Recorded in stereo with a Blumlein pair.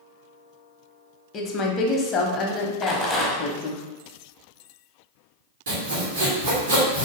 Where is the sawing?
60° right, 1.3 m.